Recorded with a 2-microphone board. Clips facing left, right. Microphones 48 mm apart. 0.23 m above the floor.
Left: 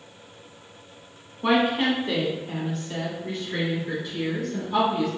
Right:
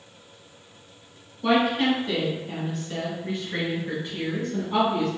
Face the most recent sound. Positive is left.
turn(degrees=-40)  # may be behind; listen again after turning